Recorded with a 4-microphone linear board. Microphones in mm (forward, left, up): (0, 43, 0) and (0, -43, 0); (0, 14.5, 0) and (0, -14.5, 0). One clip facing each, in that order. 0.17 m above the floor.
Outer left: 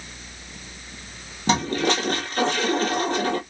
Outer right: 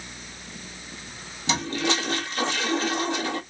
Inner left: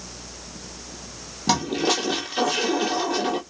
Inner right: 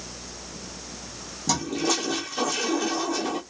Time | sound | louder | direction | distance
1.5 | a toilet flushing | outer left 4 dB, inner left 4 dB | 45° left (ahead or behind) | 0.9 m